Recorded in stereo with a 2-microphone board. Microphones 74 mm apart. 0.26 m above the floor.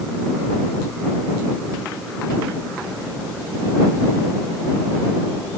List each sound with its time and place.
Only background noise.